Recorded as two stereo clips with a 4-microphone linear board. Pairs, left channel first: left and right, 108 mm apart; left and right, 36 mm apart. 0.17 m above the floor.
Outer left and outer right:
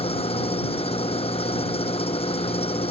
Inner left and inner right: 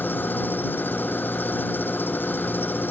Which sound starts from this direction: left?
An engine running, at 0.0 s.